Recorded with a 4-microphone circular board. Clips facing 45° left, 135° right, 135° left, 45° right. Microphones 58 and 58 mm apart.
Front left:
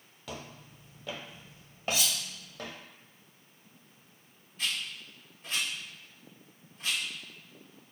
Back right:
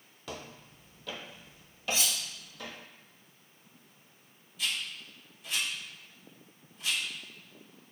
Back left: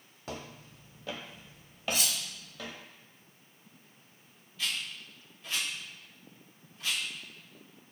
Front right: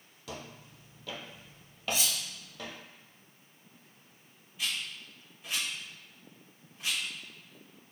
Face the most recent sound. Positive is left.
turn(degrees=20)